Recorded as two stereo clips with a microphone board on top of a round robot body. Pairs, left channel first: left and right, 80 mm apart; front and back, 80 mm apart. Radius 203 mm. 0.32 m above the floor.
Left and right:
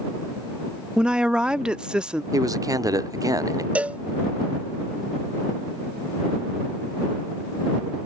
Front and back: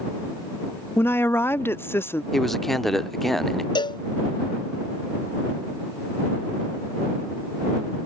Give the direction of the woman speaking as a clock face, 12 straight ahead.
1 o'clock.